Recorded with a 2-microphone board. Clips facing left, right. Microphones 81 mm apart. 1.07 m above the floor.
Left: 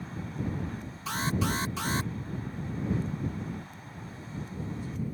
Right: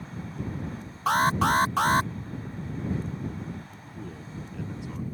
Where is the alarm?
50° right (ahead or behind).